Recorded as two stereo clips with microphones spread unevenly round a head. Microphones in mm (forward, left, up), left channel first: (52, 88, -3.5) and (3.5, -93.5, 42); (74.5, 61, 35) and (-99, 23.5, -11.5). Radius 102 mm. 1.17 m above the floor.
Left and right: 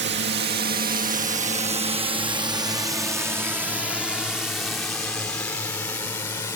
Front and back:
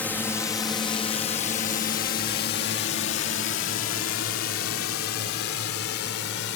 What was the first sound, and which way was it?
A drone, 75° right.